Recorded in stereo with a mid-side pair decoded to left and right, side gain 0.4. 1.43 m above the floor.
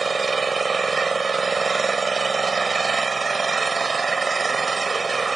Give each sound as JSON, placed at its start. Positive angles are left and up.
{"t": 0.0, "sound": "an engine running", "azimuth_deg": -30}